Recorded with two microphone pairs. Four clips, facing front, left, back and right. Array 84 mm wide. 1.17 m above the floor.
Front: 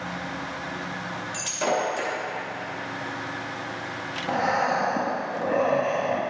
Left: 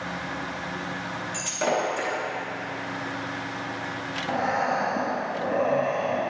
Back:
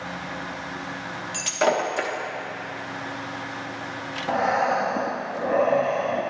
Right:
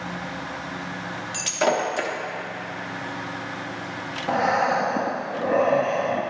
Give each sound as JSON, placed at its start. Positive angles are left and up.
{"t": 1.3, "sound": "breaking glass", "azimuth_deg": -150, "distance_m": 0.9}
{"t": 4.3, "sound": "breathing", "azimuth_deg": -120, "distance_m": 0.6}